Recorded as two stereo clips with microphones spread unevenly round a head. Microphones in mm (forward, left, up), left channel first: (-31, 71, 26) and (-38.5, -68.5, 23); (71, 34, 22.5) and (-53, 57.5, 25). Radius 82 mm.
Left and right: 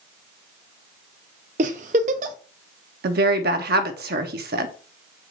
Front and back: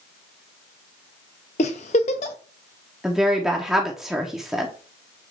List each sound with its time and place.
1.6 s a giggle: 55° right, 0.6 m
3.0 s a woman speaking: 105° right, 1.1 m